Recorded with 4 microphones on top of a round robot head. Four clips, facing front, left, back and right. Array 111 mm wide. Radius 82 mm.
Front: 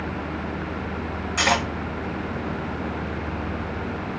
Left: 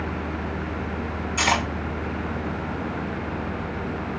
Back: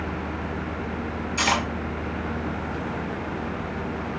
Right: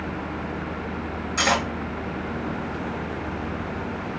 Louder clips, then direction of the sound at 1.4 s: Even, front 2 dB; 35° right.